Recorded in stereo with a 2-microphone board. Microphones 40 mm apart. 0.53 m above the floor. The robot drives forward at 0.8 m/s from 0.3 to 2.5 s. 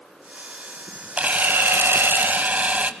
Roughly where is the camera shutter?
Right.